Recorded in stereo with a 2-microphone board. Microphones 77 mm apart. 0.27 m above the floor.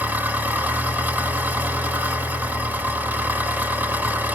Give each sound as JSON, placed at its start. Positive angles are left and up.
{"t": 0.0, "sound": "an engine running", "side_deg": -25, "distance_m": 1.2}